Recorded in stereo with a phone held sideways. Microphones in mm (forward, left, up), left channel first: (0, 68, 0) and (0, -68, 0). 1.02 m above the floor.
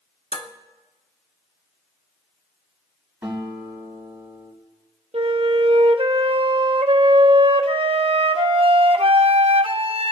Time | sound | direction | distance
0.3 | dishes clattering | 45° left (ahead or behind) | 1.0 m
3.2 | a guitar | 10° right (ahead or behind) | 6 m
5.1 | a flute | 50° right (ahead or behind) | 0.6 m